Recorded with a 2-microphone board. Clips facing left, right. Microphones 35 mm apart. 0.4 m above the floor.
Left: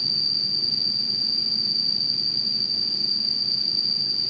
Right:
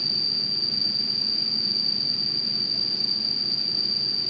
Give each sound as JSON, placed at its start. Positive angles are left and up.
{"t": 0.0, "sound": "an insect", "side_deg": 25, "distance_m": 1.3}